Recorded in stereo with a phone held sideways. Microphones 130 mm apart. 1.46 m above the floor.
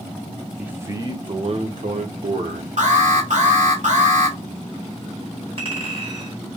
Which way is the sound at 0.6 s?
10° right (ahead or behind).